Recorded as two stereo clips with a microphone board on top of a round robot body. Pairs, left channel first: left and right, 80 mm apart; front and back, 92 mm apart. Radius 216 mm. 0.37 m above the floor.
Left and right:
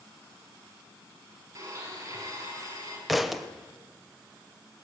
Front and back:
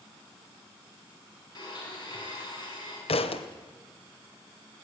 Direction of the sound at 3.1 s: Straight ahead.